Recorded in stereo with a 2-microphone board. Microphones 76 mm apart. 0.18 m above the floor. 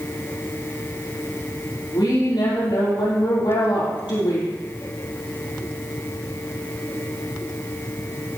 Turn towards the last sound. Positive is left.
turn(degrees=75)  # may be behind; listen again after turning